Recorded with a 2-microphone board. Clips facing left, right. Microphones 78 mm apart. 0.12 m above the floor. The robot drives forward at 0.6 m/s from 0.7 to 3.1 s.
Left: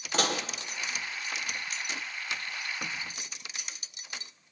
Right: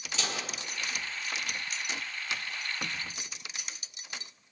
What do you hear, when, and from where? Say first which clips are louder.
0.1 s dishes clattering: left 7 dB; 55° left (ahead or behind), 2 m